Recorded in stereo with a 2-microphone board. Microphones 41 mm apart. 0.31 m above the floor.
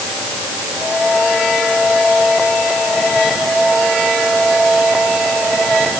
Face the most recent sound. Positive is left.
No sound to turn to.